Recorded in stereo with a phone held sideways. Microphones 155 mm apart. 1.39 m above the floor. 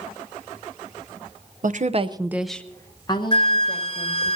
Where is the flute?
35° left (ahead or behind), 1.3 m.